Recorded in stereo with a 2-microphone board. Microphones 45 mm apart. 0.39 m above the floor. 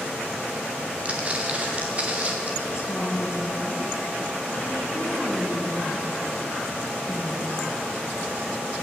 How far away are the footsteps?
About 4.5 m.